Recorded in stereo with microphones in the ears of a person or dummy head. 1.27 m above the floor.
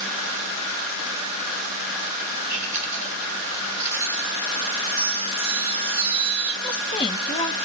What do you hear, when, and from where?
2.5 s chewing: 30° left (ahead or behind), 7 m
4.9 s a chime: 40° left (ahead or behind), 5.5 m
6.6 s a woman speaking: 30° left (ahead or behind), 1.0 m